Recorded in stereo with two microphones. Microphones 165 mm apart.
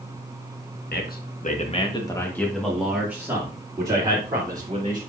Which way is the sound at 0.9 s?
75° left (ahead or behind).